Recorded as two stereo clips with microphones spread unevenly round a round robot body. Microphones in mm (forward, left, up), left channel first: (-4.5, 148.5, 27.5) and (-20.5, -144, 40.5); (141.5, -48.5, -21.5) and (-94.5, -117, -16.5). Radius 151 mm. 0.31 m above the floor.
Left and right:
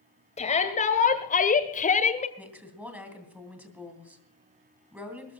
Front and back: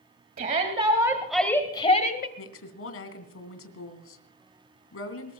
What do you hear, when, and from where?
0.4 s a shout: 145° left, 1.8 m; by 2.3 s 40° left, 1.5 m
2.4 s a woman speaking: 10° right, 3 m